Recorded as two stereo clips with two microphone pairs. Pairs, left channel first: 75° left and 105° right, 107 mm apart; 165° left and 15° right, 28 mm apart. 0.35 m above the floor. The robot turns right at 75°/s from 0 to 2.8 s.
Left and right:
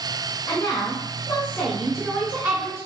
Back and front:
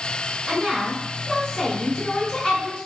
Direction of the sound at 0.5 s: 50° left.